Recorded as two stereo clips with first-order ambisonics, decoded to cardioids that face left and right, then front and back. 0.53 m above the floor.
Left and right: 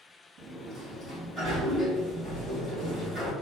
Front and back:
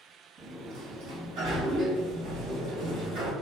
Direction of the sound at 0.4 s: 175° right.